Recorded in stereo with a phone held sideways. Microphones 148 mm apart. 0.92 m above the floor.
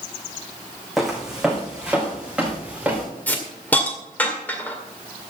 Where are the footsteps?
Centre (ahead or behind), 2.5 m; by 3.1 s 10° right (ahead or behind), 4 m.